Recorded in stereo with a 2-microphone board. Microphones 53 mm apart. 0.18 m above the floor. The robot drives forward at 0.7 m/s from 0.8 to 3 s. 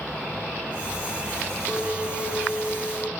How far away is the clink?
About 1.9 m.